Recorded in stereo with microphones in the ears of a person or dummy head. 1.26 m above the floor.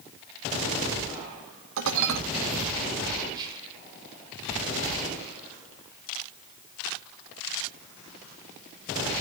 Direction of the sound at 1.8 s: 70° right (ahead or behind).